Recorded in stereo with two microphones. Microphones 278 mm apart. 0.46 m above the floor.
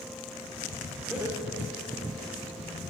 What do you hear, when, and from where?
1.1 s laughter: 5° right (ahead or behind), 0.9 m; by 2.3 s 30° right (ahead or behind), 2 m